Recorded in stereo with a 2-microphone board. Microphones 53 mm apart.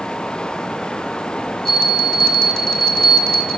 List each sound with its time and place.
1.6 s a bell: 10° left (ahead or behind), 1.1 m